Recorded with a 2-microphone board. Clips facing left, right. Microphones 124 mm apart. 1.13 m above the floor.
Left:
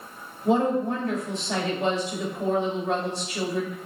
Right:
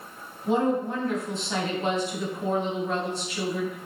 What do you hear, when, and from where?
0.5 s a woman speaking: 65° left (ahead or behind), 2 m